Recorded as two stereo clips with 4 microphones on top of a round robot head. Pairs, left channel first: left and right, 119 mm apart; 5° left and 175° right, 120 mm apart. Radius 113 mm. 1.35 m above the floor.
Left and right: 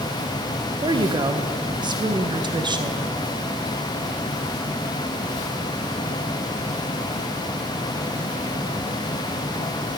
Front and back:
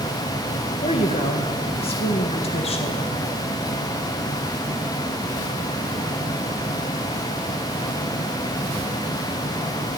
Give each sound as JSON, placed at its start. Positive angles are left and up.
{"t": 0.8, "sound": "a woman speaking", "azimuth_deg": -40, "distance_m": 1.7}